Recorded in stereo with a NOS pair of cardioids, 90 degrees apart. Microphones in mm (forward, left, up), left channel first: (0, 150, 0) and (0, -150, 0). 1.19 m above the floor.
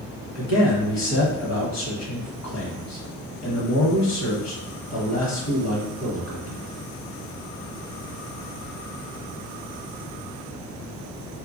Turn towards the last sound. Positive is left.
turn(degrees=60)